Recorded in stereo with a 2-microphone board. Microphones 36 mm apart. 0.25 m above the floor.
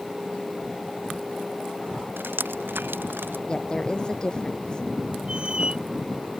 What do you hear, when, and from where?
2.2 s dripping: 80° right
3.5 s a woman speaking: 20° left (ahead or behind)
5.3 s a squeak: 30° right (ahead or behind)